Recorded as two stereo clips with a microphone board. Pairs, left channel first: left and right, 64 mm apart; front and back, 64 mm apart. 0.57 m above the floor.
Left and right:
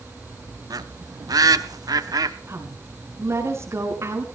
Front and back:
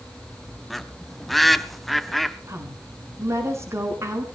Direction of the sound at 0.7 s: 85° right.